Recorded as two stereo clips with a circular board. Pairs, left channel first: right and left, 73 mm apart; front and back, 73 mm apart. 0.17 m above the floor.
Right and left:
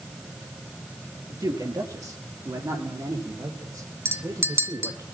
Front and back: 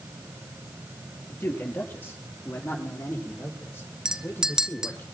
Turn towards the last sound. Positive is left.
turn(degrees=110)